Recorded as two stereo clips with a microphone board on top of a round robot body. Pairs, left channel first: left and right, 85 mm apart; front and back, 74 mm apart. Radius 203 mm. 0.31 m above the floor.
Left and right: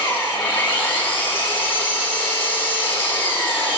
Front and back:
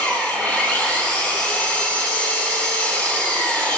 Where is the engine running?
65° left, 7.5 m.